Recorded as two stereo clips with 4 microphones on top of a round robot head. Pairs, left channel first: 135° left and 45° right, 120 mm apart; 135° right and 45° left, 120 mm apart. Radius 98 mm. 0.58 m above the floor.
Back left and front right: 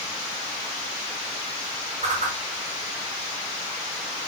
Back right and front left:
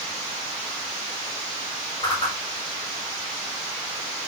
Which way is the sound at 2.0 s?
75° right.